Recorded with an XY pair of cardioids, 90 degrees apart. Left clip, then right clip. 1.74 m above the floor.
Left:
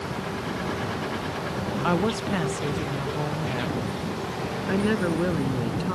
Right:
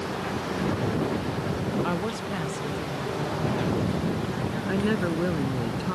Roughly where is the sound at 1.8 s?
Ahead left.